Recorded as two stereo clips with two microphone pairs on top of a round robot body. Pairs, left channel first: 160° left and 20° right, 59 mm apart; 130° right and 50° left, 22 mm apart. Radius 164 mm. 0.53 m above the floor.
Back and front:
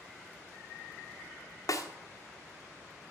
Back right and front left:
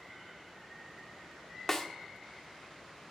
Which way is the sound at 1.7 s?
155° left.